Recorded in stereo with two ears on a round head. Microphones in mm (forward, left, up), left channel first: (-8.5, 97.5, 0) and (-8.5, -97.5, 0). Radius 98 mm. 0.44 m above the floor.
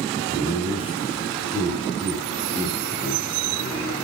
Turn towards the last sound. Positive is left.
turn(degrees=0)  # may be behind; listen again after turning